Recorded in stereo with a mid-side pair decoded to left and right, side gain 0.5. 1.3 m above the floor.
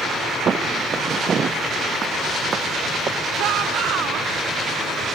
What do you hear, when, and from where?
0.5 s footsteps: 40° right
3.4 s a shout: 65° right